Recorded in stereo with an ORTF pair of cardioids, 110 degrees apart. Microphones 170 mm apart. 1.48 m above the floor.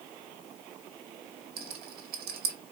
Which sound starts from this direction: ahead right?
A rattle, at 1.6 s.